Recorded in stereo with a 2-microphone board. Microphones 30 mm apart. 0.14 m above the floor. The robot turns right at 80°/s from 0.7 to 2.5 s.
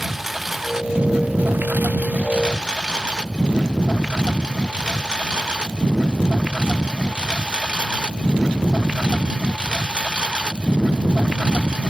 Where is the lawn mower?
10° right (ahead or behind); by 11.9 s 30° right (ahead or behind).